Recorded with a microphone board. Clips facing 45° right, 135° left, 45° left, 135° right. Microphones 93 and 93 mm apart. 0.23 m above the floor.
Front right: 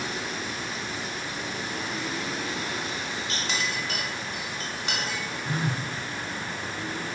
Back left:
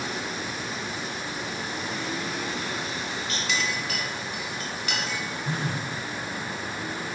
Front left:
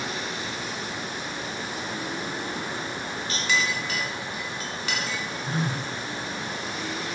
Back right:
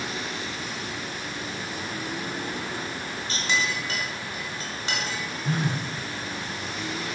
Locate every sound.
3.3 s a clink: 85° right, 1.1 m
5.4 s a phone buzzing: 130° right, 1.1 m